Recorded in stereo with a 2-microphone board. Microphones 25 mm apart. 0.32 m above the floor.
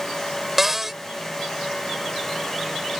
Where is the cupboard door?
15° right (ahead or behind).